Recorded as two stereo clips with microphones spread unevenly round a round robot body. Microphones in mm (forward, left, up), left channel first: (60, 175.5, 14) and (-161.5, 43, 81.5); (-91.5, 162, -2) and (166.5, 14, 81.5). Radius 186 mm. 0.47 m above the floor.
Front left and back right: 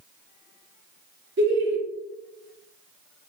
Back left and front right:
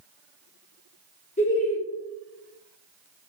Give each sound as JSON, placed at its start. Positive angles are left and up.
{"t": 1.4, "sound": "laughter", "azimuth_deg": 170, "distance_m": 1.2}